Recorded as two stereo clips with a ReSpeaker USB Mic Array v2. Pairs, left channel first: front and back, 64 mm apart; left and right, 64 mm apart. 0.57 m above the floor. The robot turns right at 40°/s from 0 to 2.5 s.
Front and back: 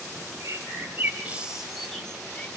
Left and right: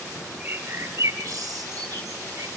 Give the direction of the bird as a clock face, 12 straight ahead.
5 o'clock.